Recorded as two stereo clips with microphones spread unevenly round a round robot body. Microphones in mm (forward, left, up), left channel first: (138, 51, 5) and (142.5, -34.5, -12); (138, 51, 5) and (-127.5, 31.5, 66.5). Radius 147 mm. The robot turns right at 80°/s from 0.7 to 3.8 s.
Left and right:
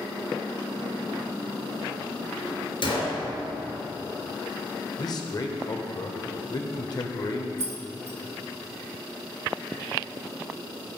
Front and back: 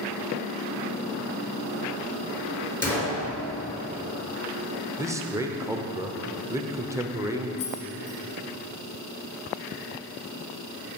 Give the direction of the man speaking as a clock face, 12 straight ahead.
9 o'clock.